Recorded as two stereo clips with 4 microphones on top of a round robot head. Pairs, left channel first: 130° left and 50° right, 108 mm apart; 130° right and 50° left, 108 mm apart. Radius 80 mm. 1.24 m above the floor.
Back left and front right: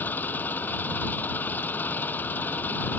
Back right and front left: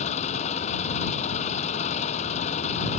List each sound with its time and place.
0.0 s an engine running: 155° right